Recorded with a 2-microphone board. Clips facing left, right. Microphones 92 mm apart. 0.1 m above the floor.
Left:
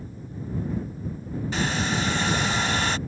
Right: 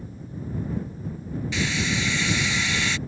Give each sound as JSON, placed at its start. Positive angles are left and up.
{"t": 1.5, "sound": "a hair dryer", "side_deg": 45}